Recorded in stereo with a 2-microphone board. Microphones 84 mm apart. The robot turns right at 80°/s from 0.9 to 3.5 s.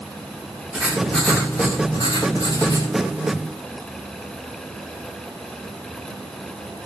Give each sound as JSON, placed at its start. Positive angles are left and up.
{"t": 0.7, "sound": "writing", "azimuth_deg": -15, "distance_m": 8.0}